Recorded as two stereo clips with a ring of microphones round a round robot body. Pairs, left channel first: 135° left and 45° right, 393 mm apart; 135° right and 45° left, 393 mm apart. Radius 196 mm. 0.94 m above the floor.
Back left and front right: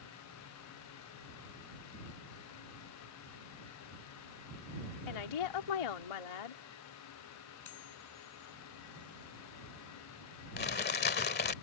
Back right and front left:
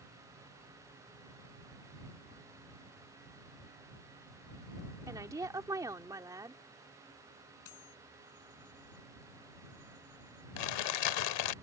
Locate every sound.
5.1 s a woman speaking: 125° left
7.7 s cutlery clinking: straight behind
10.6 s crumpling: 160° right